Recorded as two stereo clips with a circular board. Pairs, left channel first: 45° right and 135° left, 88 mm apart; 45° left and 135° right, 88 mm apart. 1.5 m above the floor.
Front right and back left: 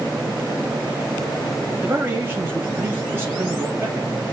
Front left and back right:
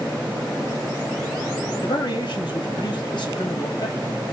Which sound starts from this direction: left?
A man speaking, at 1.8 s.